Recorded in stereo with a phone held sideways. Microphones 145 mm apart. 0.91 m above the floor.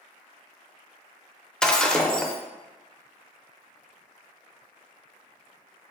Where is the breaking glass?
5° left (ahead or behind), 0.6 m.